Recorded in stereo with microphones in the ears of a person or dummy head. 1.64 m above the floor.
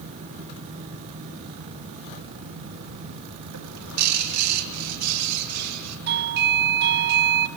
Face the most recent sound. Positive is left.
turn(degrees=-50)  # may be behind; listen again after turning